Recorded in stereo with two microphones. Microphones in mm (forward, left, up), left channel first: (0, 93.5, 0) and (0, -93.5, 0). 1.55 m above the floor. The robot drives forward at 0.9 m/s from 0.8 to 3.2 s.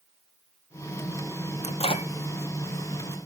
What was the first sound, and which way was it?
A microwave, 35° left (ahead or behind).